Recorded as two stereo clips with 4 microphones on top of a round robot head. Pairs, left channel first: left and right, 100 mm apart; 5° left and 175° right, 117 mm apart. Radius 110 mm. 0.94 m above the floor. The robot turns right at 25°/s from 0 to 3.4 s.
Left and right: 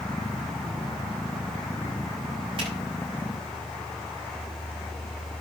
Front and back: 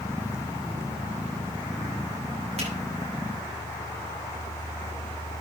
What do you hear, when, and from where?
2.6 s a finger snap: 135° right, 9 m; by 2.7 s 130° right, 9 m